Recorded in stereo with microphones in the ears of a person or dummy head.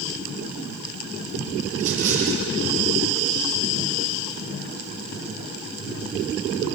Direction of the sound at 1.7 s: 80° right.